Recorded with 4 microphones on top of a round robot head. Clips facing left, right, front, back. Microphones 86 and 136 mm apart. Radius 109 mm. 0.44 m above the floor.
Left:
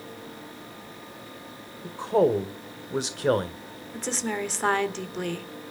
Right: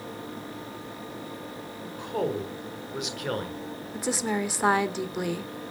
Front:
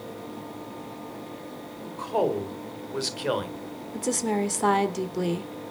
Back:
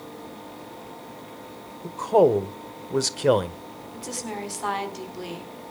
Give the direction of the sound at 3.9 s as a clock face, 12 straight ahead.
12 o'clock.